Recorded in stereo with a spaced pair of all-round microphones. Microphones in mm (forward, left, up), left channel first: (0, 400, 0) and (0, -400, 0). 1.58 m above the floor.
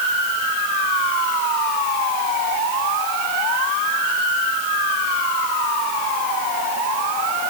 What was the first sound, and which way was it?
Only background noise.